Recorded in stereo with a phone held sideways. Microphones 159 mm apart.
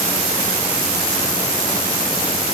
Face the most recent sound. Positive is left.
No sound to turn to.